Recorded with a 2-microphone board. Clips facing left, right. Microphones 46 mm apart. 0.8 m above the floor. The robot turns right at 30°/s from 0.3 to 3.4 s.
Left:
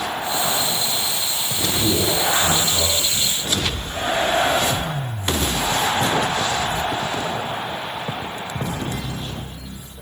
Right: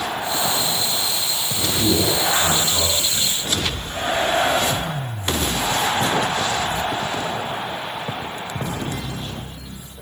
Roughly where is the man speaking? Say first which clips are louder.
Right 1 dB; behind right.